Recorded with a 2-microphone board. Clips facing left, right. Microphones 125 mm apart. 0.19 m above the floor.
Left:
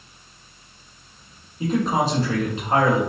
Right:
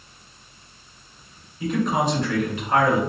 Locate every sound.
1.6 s a man speaking: 30° left (ahead or behind), 1.7 m